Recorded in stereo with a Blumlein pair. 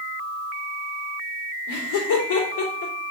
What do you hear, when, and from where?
1.7 s laughter: 55° left, 3 m